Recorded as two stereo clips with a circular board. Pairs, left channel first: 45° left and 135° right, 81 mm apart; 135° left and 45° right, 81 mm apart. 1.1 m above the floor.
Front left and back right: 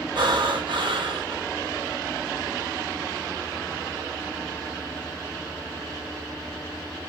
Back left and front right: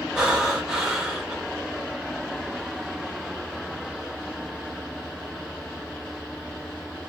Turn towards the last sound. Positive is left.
turn(degrees=-125)